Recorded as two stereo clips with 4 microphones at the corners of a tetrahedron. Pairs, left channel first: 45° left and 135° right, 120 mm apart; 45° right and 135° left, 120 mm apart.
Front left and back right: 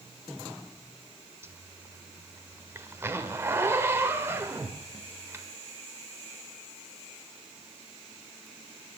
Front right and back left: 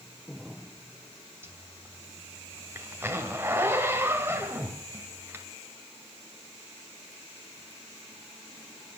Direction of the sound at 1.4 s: Straight behind.